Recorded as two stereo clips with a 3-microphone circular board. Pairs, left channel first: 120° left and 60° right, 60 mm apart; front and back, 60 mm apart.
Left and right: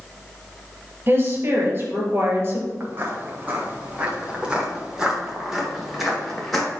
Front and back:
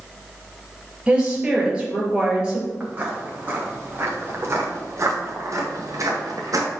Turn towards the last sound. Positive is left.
turn(degrees=-155)